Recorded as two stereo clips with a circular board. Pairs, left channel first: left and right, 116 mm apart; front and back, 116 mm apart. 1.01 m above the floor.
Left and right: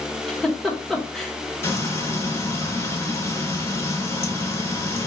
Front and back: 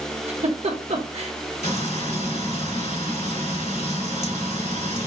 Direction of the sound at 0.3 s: 175° left.